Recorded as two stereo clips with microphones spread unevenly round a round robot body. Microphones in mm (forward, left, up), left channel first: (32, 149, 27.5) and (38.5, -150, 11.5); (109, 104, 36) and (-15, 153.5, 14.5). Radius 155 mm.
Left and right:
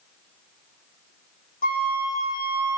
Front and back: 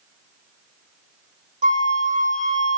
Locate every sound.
1.6 s a flute: 155° left, 1.3 m